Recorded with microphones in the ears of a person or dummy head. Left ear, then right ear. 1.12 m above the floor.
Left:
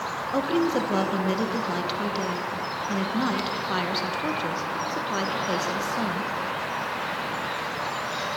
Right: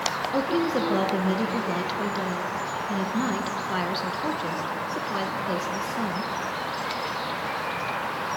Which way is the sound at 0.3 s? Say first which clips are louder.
Left 3 dB; 5° left (ahead or behind).